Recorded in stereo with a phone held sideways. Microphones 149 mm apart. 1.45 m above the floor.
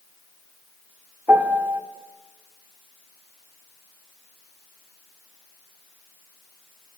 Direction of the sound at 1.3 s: 10° right (ahead or behind).